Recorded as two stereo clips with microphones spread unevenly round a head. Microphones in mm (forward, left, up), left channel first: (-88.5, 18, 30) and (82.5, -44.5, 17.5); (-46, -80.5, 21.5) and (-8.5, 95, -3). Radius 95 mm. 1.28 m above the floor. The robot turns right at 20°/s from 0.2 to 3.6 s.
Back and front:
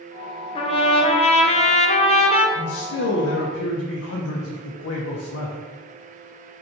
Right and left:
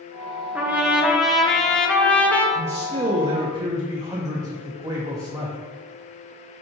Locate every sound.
0.6 s a trumpet: 135° left, 0.5 m; by 2.5 s 175° left, 0.5 m
2.5 s a man speaking: 130° left, 0.5 m; by 5.6 s 150° left, 0.5 m